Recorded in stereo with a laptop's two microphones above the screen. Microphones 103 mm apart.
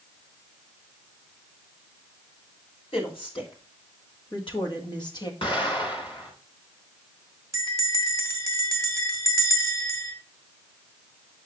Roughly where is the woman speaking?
Left.